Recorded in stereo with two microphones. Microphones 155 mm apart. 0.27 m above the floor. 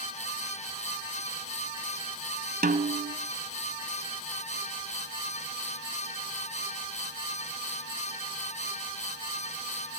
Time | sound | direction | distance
2.6 | a snare drum | 75° right (ahead or behind) | 1.1 m